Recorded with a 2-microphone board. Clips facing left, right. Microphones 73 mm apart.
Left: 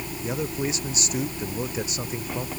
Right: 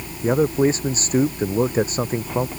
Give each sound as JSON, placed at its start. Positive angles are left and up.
{"t": 0.2, "sound": "a man speaking", "side_deg": -40}